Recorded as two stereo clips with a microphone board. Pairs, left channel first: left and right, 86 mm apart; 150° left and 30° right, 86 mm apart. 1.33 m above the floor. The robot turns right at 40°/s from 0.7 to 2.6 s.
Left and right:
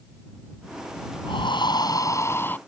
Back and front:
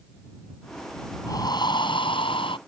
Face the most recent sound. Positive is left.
turn(degrees=160)